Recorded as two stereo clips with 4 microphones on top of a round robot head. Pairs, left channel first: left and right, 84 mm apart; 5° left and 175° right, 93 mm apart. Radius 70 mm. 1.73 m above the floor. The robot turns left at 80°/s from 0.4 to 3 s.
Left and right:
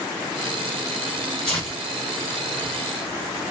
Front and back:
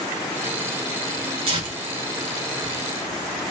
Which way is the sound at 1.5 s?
175° left.